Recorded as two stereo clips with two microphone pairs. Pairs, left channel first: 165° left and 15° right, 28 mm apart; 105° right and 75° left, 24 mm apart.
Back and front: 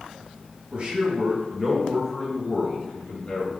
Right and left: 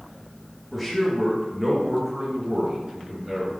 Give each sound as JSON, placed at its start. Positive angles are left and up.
{"t": 0.7, "sound": "a man speaking", "azimuth_deg": -20, "distance_m": 1.0}